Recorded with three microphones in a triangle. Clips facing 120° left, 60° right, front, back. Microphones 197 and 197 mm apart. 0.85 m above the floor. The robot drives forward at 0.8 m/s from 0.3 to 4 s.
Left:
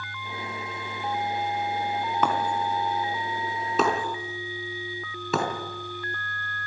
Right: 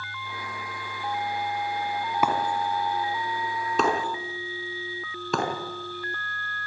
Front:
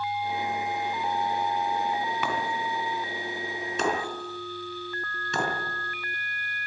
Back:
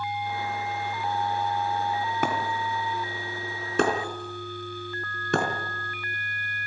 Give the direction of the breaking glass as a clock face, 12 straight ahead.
5 o'clock.